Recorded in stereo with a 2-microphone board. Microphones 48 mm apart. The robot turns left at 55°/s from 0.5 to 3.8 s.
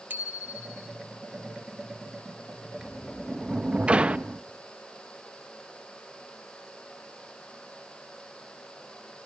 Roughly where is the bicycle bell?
Right.